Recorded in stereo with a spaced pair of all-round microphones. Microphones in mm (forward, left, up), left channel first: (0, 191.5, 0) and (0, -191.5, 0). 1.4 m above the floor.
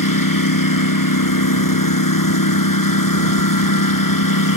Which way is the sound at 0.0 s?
55° left (ahead or behind).